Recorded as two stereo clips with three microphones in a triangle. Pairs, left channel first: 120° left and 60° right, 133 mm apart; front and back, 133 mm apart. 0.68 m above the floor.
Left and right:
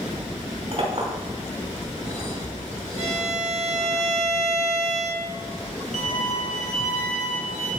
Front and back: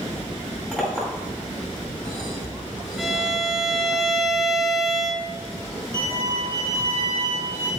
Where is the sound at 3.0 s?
90° right, 0.7 m.